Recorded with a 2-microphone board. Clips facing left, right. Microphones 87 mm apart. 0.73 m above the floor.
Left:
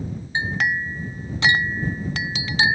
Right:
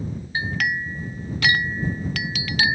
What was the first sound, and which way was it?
A clink, 25° left (ahead or behind).